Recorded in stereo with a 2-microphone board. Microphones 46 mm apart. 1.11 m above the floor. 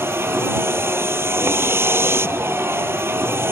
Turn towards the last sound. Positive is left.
turn(degrees=-70)  # may be behind; listen again after turning